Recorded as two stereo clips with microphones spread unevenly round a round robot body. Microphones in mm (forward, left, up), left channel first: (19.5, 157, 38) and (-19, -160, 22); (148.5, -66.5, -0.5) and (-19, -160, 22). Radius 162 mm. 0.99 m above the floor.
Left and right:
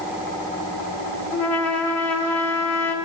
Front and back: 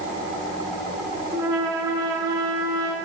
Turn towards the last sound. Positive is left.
turn(degrees=130)